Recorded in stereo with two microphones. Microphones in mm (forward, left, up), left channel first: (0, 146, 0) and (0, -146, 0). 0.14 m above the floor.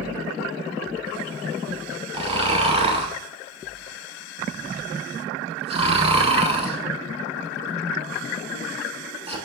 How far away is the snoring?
About 0.6 m.